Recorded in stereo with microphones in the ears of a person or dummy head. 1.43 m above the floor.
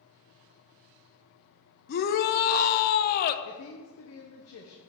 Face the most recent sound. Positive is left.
turn(degrees=75)  # may be behind; listen again after turning